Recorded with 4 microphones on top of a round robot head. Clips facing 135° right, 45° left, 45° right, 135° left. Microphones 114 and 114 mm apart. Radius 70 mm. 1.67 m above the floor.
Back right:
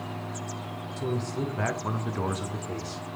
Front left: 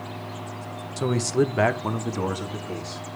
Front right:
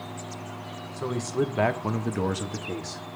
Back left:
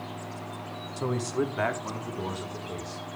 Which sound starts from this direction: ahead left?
A man speaking, at 1.0 s.